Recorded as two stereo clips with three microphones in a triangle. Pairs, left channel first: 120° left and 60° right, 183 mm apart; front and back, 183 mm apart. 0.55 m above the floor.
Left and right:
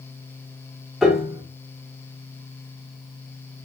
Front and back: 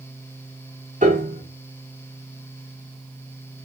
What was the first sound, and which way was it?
A piano, 150° right.